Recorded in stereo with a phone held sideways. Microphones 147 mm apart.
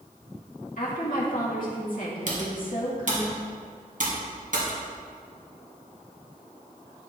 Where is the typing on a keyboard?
65° right (ahead or behind), 2.5 m.